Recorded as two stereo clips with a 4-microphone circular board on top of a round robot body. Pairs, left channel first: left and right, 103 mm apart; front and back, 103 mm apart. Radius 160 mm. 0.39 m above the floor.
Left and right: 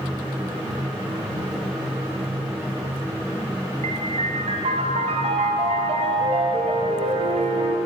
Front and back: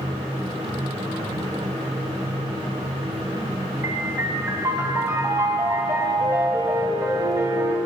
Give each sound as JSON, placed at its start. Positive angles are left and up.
{"t": 3.8, "sound": "a piano", "azimuth_deg": -115, "distance_m": 0.9}